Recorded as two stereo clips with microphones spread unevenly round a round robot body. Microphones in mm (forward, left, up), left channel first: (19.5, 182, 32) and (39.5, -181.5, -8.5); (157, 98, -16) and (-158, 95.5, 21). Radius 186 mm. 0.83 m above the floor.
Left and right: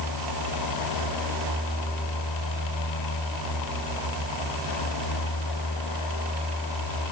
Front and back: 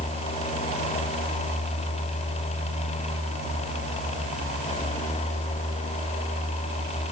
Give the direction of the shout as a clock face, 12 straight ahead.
I don't hear a shout.